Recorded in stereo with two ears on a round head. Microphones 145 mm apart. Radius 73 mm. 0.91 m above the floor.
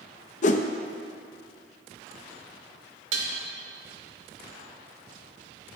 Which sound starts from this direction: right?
Dishes clattering, at 3.1 s.